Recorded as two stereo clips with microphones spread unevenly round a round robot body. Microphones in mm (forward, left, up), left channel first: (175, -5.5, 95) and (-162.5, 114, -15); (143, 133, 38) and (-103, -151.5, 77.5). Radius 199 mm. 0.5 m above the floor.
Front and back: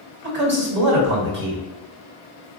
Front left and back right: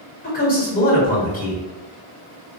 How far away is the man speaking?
About 1.7 m.